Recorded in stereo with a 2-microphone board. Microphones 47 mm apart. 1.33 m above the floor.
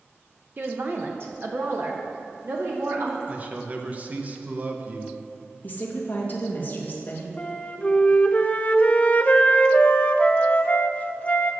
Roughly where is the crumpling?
I don't hear crumpling.